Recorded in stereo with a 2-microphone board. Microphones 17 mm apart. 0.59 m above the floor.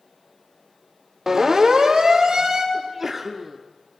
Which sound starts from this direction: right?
A siren, at 1.3 s.